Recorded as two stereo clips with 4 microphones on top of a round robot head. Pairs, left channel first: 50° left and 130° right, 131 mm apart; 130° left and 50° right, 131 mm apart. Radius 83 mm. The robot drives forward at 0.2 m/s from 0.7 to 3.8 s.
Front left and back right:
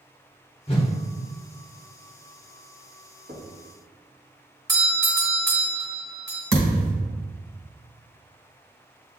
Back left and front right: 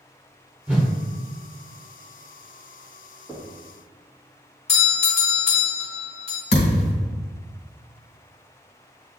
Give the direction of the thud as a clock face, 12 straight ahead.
7 o'clock.